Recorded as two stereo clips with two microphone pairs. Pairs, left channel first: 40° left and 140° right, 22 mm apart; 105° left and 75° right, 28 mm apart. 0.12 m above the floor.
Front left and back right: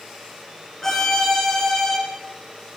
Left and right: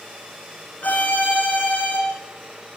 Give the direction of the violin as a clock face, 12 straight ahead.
8 o'clock.